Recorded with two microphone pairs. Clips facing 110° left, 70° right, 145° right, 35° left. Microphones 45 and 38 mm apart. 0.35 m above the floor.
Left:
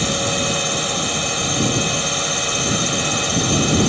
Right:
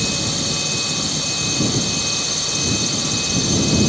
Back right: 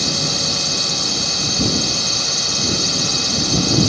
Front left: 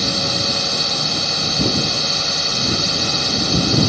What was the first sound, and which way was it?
A drone, 105° left.